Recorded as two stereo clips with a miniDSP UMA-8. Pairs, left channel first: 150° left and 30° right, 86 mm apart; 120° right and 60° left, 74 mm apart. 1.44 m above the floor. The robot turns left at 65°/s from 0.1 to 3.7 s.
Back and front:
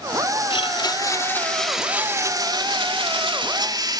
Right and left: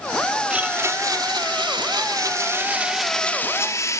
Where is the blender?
135° left, 2 m; by 4.0 s 70° right, 2 m.